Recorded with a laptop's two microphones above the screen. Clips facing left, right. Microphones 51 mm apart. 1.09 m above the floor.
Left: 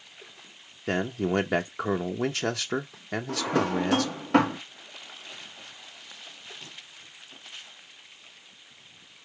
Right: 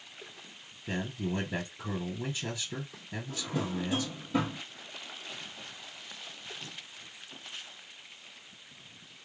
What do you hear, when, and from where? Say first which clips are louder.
0.9 s a man speaking: left 8 dB; 85° left, 0.7 m
3.3 s a drawer: left 9 dB; 75° left (ahead or behind), 0.6 m